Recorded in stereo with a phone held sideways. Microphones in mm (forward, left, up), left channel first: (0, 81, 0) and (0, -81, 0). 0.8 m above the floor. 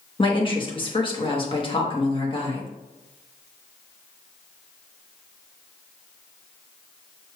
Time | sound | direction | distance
0.2 | a woman speaking | 35° left (ahead or behind) | 1.0 m